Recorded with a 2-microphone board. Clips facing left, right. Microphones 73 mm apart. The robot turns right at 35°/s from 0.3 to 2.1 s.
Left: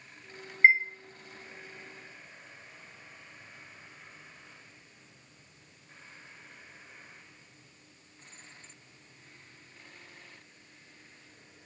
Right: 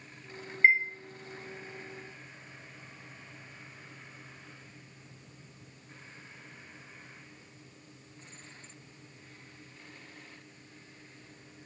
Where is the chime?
25° left (ahead or behind), 0.9 m; by 0.8 s 20° left (ahead or behind), 0.9 m.